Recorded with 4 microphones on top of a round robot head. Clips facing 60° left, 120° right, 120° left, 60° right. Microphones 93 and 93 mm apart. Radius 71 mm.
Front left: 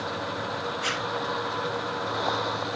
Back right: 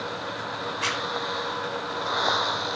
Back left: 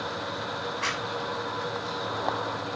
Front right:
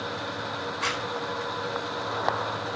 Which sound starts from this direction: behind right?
A zipper, at 0.8 s.